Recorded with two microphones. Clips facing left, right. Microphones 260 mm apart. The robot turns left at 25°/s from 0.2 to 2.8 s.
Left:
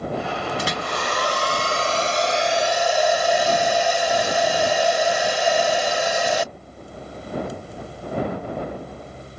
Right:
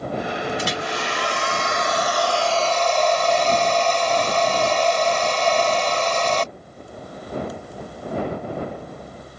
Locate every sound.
0.6 s a hair dryer: 65° left; by 6.5 s 10° left